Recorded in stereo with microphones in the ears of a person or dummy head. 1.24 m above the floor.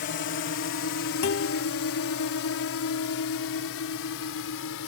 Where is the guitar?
50° left (ahead or behind).